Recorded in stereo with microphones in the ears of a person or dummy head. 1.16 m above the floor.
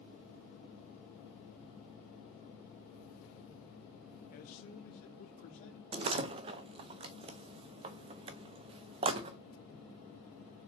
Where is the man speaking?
40° left (ahead or behind), 0.8 m; by 5.8 s 50° left (ahead or behind), 1.7 m.